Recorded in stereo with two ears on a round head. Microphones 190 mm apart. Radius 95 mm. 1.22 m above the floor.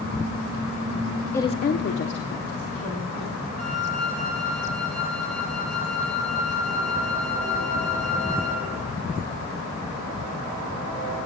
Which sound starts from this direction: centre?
A woman speaking, at 1.3 s.